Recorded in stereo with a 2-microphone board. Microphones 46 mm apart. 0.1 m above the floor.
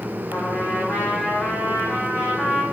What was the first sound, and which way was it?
A trumpet, 75° left (ahead or behind).